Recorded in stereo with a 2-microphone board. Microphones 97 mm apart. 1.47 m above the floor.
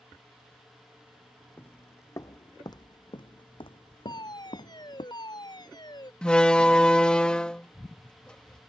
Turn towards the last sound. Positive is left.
turn(degrees=10)  # may be behind; listen again after turning